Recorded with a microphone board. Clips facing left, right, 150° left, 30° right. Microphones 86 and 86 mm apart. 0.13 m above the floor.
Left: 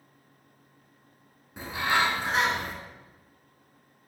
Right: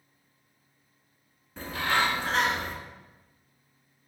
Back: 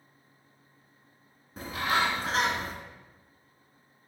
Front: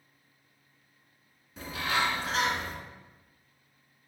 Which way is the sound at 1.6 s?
155° left.